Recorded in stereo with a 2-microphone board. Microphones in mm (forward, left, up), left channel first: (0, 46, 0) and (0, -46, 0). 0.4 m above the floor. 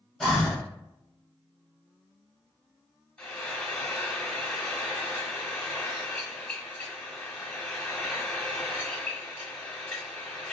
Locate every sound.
0.2 s breathing: 5° left (ahead or behind), 0.9 m
3.2 s frying: 10° left (ahead or behind), 0.7 m